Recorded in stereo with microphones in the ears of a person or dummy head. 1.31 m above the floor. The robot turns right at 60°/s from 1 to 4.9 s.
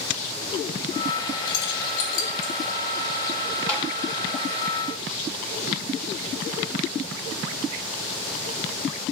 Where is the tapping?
5° left (ahead or behind), 1.9 m; by 3.9 s 15° left (ahead or behind), 1.9 m.